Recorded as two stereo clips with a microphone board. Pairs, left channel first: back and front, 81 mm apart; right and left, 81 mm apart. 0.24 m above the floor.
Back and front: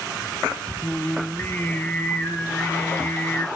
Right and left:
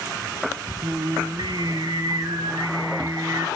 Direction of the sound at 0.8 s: 115° left.